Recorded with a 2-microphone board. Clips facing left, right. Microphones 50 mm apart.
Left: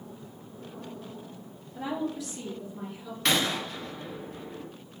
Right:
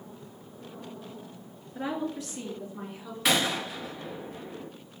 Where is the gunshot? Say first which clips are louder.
Right 1 dB; 5° right (ahead or behind), 0.7 m.